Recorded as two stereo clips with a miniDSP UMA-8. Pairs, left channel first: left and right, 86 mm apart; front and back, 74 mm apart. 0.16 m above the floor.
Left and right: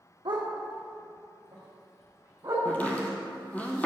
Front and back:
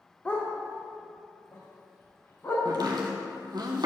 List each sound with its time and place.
0.2 s a dog barking: 70° right, 1.6 m; by 2.5 s 50° right, 3 m
2.6 s chopping: 160° left, 1.0 m